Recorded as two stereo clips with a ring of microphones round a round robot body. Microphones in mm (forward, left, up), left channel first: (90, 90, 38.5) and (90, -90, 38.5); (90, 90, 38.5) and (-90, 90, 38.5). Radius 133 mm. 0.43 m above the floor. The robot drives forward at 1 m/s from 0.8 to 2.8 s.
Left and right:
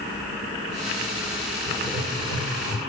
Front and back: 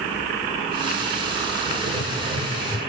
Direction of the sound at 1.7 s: 155° right.